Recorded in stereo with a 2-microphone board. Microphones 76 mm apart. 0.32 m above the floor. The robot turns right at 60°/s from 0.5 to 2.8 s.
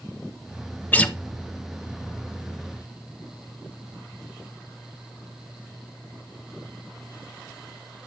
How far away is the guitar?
About 0.5 m.